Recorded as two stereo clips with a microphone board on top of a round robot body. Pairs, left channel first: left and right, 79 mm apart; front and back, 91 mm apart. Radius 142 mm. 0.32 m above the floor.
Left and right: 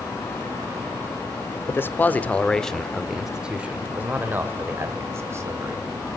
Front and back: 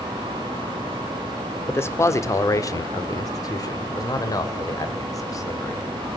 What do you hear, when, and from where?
1.7 s a man speaking: 45° left, 1.4 m; by 5.9 s 45° right, 2.5 m